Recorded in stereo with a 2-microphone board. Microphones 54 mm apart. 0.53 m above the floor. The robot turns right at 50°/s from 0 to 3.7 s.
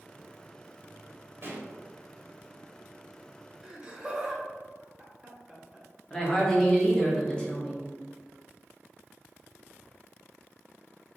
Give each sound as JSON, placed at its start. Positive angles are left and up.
{"t": 1.4, "sound": "a pop", "side_deg": -45, "distance_m": 0.8}
{"t": 3.6, "sound": "laughter", "side_deg": -10, "distance_m": 1.2}
{"t": 6.1, "sound": "a woman speaking", "side_deg": 20, "distance_m": 1.0}